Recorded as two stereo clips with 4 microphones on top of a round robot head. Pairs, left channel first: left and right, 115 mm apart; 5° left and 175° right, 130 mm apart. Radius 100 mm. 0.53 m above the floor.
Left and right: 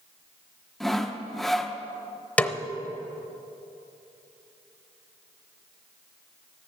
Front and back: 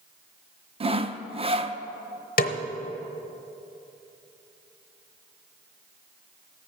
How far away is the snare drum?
About 0.8 m.